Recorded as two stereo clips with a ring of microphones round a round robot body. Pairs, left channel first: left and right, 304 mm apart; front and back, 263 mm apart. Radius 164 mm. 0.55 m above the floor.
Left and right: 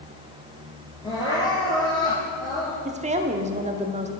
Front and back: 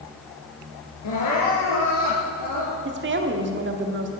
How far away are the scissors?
I don't hear scissors.